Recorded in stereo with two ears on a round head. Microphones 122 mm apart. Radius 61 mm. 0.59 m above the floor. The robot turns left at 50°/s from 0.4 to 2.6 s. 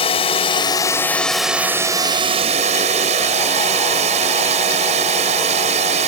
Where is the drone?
50° left; by 6.1 s 60° right.